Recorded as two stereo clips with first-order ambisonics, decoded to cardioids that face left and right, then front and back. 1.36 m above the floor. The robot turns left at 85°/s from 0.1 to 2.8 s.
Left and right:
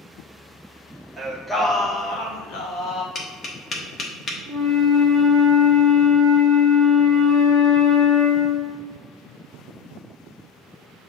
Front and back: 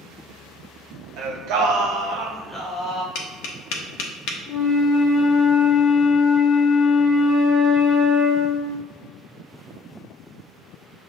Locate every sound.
1.2 s singing: 165° right, 0.8 m; by 3.0 s 55° left, 0.8 m
3.1 s tapping: 25° left, 0.7 m
4.5 s a flute: 10° right, 1.4 m